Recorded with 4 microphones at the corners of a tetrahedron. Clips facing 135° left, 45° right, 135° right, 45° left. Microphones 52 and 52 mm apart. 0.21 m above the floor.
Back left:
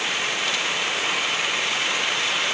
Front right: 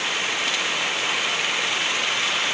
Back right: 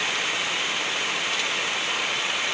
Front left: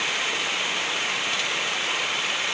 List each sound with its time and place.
Only background noise.